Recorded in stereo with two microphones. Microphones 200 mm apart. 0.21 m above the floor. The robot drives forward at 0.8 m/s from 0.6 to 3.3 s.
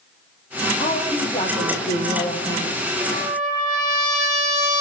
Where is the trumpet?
40° right (ahead or behind), 7.5 m; by 4.8 s 35° right (ahead or behind), 7.5 m.